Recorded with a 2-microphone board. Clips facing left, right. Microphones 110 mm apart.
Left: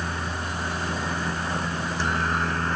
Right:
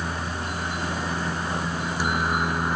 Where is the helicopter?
10° right (ahead or behind).